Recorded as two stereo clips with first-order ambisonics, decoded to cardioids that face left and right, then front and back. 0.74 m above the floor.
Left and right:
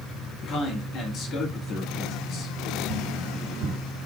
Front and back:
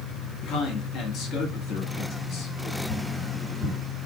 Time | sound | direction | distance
0.4 | a man speaking | 45° left | 1.4 m
2.9 | tapping | 65° right | 1.4 m